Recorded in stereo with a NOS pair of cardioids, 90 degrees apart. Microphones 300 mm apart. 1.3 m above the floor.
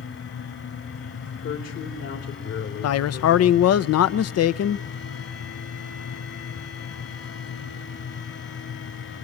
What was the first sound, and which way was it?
A fan, 50° left.